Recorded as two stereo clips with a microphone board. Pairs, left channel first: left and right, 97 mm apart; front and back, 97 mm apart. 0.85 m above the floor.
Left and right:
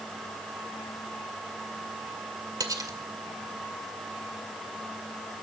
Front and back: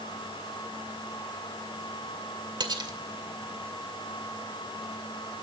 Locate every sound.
2.6 s cutlery clinking: 140° right, 1.9 m